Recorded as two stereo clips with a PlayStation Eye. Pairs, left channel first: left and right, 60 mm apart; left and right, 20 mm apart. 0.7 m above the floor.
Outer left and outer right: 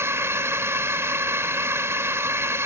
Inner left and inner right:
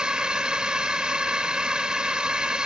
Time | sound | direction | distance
0.0 | a drone | 45° right (ahead or behind) | ?